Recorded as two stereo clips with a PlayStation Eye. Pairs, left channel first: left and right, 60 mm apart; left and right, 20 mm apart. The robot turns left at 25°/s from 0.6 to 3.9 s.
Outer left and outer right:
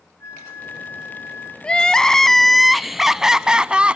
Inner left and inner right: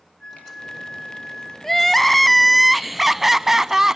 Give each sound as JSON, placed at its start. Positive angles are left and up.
{"t": 0.2, "sound": "a flute", "side_deg": 50, "distance_m": 2.5}
{"t": 1.6, "sound": "crying", "azimuth_deg": 25, "distance_m": 0.5}